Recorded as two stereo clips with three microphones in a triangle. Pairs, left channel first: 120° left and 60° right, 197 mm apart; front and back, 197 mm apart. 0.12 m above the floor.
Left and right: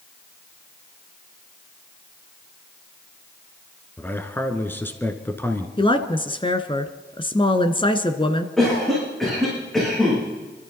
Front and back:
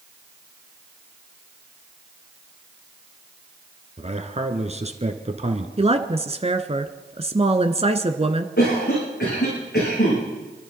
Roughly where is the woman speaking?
Behind.